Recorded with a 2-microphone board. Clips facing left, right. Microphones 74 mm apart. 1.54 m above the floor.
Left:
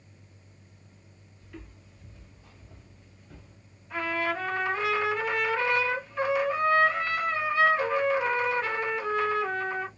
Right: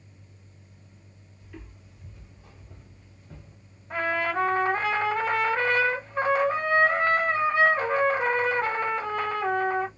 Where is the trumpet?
45° right (ahead or behind), 1.1 m.